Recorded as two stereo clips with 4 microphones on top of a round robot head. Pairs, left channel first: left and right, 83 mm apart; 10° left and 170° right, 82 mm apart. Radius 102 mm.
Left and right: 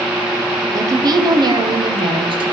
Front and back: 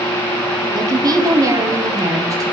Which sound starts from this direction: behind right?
A woman speaking, at 0.7 s.